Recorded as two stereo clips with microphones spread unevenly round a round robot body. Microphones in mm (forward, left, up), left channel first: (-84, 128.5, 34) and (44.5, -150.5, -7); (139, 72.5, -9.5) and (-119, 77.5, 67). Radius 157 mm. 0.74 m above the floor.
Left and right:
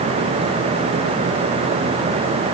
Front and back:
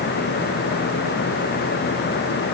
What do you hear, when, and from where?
Only background noise.